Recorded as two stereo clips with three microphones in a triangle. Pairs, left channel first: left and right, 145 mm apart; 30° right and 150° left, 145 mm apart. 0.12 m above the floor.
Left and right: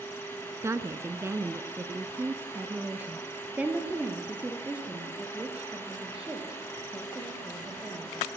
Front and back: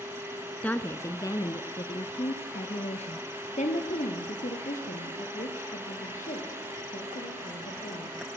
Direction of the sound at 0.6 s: 90° right.